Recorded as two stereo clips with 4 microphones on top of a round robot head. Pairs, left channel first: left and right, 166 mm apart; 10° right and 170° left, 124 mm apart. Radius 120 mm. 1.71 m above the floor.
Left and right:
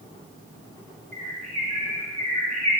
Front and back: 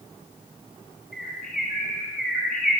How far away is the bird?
About 2.5 m.